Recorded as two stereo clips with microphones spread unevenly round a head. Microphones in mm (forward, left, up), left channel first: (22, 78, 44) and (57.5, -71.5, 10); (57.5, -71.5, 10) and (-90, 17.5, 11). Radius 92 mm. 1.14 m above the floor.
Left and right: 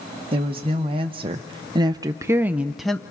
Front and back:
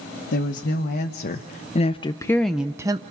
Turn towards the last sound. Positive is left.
turn(degrees=-160)